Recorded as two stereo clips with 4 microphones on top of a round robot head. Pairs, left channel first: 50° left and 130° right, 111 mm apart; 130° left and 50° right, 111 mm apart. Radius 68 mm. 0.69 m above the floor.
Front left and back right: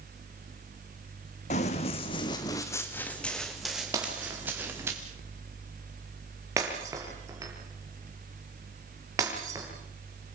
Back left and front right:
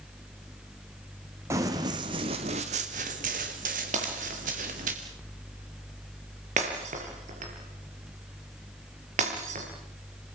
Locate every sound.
1.5 s running footsteps: 20° left, 3 m; by 4.9 s 60° right, 4.5 m
3.9 s breaking glass: 70° right, 7 m